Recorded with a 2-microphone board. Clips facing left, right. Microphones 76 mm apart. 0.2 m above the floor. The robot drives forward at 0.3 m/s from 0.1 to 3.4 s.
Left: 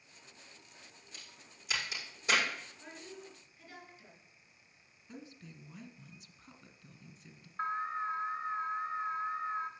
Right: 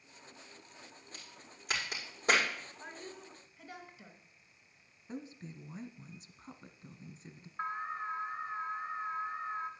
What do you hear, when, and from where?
1.1 s a crack: 50° right (ahead or behind), 4.5 m; by 2.5 s 45° right (ahead or behind), 5 m
2.8 s a woman speaking: 60° right (ahead or behind), 2.5 m
5.1 s a woman speaking: 30° right (ahead or behind), 1.2 m
7.6 s an alarm: 10° right (ahead or behind), 1.4 m